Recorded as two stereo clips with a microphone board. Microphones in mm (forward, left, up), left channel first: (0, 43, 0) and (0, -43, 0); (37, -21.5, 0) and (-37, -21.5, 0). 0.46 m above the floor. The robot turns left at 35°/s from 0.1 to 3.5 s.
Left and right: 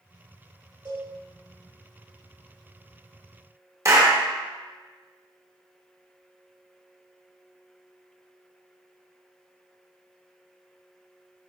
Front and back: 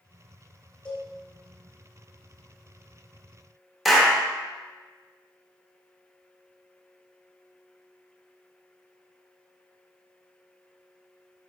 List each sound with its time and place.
0.8 s a cowbell: 60° right, 1.4 m; by 1.1 s 65° right, 1.4 m
3.9 s a clap: 95° right, 0.5 m